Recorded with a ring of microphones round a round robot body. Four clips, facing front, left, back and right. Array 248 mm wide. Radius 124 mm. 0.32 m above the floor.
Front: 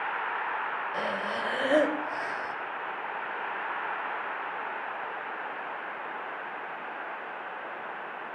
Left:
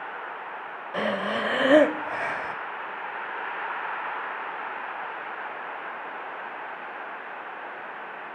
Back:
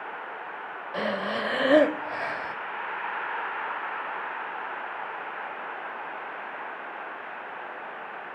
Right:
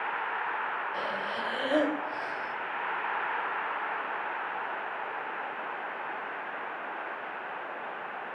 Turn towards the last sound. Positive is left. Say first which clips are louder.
# left 6 dB, back 6 dB
turn(degrees=120)